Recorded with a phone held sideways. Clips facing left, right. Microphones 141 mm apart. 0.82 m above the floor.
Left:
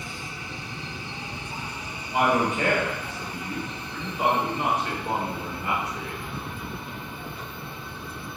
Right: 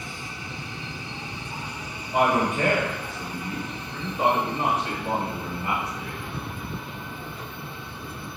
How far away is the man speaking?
About 1.6 m.